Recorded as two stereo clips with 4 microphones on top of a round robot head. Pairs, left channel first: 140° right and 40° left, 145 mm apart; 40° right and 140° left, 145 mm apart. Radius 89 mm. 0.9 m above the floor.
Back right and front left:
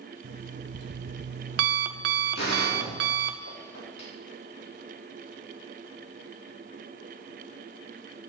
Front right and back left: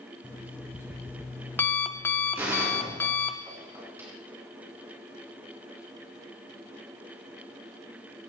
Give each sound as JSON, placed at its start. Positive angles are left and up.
{"t": 0.2, "sound": "an alarm clock", "azimuth_deg": 35, "distance_m": 0.6}
{"t": 2.4, "sound": "a gunshot", "azimuth_deg": -145, "distance_m": 4.0}